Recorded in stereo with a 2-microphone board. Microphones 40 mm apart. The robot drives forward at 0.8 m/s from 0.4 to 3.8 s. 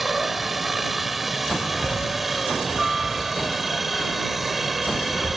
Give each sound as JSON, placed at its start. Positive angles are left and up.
{"t": 0.0, "sound": "a helicopter", "side_deg": -5}